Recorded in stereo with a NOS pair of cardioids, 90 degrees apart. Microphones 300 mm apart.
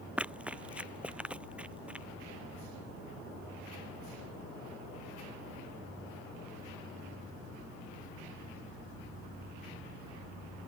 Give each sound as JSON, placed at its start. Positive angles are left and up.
{"t": 0.2, "sound": "running footsteps", "azimuth_deg": -5}